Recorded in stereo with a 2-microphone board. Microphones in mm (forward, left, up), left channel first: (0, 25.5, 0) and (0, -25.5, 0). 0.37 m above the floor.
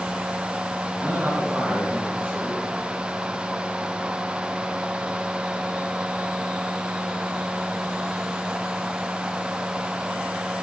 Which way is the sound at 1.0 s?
25° right (ahead or behind).